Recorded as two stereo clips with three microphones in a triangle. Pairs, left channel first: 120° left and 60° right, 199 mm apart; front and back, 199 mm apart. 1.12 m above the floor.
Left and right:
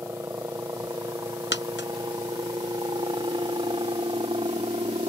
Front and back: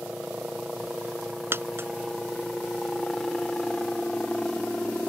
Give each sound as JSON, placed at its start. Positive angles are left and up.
{"t": 0.0, "sound": "a helicopter", "azimuth_deg": -105}
{"t": 1.5, "sound": "a dropped coin", "azimuth_deg": 105}